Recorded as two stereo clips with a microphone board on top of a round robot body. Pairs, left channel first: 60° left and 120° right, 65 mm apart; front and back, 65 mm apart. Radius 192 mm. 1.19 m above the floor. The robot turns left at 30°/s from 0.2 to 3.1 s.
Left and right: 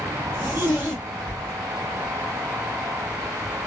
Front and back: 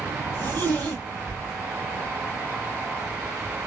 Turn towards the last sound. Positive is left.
turn(degrees=110)